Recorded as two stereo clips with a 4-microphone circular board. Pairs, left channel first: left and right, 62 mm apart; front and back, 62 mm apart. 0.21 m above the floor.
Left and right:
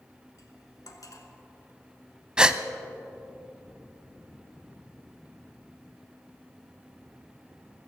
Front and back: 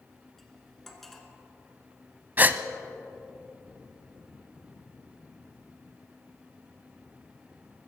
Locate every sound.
0.4 s cutlery clinking: 85° left, 1.7 m
2.4 s a gasp: 150° right, 0.6 m